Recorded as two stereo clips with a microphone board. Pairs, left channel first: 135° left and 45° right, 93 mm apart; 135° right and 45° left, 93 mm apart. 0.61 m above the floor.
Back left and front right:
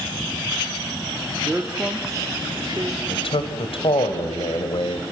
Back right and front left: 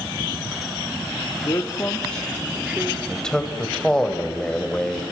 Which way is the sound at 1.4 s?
125° right.